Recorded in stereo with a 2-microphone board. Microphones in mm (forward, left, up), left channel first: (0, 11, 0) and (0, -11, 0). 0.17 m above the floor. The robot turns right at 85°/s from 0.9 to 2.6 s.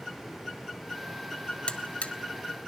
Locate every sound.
1.7 s a buzzer: 55° left (ahead or behind), 0.6 m; by 2.1 s 70° left (ahead or behind), 0.6 m